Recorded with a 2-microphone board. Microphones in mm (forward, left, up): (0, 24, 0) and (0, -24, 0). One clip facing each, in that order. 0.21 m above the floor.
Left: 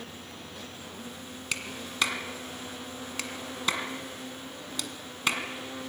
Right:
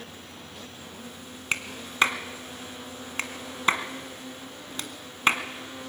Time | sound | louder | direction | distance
1.5 | a clap | right 5 dB | 35° right (ahead or behind) | 1.7 m